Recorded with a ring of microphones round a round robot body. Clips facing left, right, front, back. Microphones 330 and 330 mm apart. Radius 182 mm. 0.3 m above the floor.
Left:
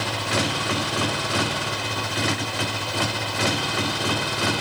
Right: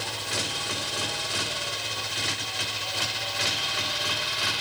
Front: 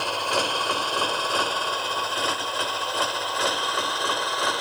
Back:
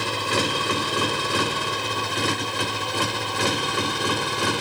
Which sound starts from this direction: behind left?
A motorcycle, at 0.0 s.